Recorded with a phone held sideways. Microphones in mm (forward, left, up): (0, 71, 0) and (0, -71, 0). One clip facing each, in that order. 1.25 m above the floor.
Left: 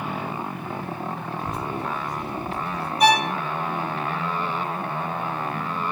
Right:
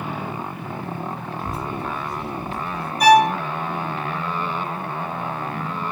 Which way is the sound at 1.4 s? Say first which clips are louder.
Right 1 dB; 15° left (ahead or behind).